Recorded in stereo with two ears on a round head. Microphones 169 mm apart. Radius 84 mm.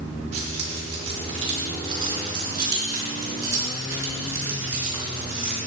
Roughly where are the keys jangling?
Right.